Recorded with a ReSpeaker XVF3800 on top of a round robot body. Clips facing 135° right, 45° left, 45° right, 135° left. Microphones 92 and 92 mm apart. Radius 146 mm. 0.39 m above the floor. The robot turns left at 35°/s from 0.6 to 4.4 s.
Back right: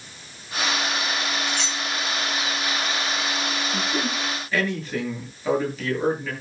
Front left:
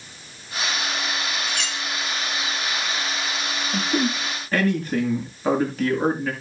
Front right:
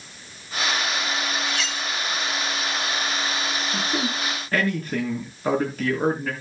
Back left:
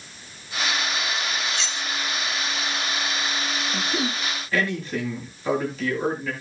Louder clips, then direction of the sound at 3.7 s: Front left 7 dB, front right 1 dB; 20° left.